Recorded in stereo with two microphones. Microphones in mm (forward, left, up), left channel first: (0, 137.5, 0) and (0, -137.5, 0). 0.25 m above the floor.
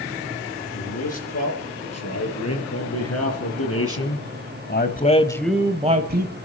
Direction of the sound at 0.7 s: 75° left (ahead or behind).